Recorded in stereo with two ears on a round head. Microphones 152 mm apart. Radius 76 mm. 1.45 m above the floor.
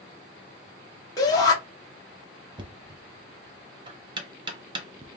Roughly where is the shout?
Left.